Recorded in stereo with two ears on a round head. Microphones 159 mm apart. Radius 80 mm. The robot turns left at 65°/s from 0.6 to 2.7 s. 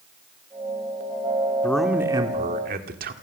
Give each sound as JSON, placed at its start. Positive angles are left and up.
{"t": 1.6, "sound": "a man speaking", "azimuth_deg": 10, "distance_m": 2.5}